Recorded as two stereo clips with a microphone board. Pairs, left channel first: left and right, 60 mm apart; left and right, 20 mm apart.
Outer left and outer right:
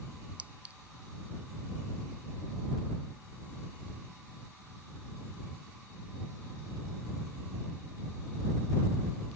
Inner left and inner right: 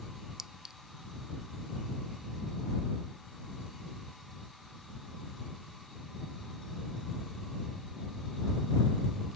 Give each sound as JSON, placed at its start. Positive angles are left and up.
{"t": 0.4, "sound": "a clink", "side_deg": -25}